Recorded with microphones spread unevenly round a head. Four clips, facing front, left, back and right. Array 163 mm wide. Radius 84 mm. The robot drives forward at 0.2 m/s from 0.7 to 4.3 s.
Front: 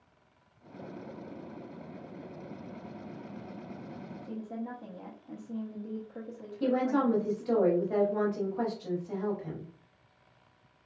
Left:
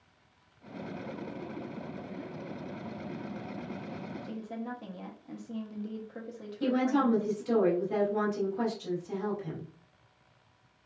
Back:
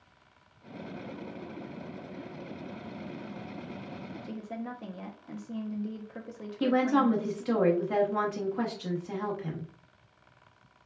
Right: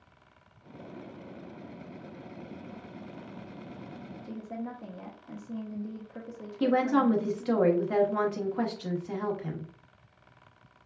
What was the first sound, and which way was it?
A woman speaking, 175° left.